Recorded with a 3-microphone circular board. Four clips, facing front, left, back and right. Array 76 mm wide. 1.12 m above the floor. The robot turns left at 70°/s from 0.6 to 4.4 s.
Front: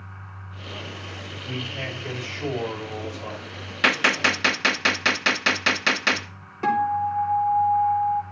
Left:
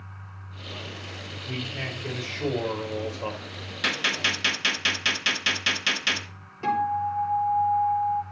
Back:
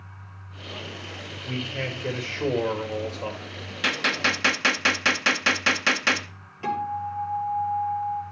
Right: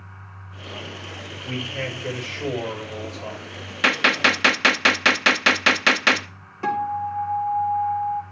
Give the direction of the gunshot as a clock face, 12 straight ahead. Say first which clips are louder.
Right 9 dB, front 4 dB; 1 o'clock.